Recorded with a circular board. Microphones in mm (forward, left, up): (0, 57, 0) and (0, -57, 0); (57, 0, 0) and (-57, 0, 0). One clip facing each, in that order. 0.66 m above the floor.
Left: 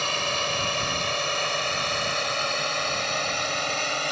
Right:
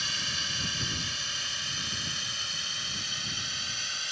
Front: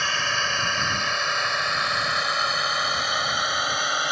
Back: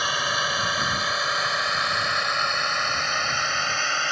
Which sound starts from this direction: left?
A drone, at 0.0 s.